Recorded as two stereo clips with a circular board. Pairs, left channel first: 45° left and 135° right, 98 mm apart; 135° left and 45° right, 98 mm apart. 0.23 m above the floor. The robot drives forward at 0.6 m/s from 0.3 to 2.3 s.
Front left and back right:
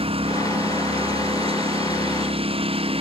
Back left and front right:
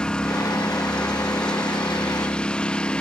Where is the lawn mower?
145° right.